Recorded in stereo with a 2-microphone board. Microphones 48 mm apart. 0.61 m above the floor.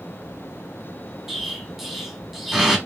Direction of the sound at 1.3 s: 5° right (ahead or behind).